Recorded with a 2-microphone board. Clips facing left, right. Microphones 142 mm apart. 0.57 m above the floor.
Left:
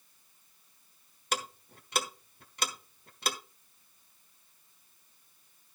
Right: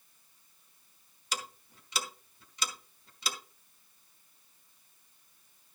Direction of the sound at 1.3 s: 60° left (ahead or behind).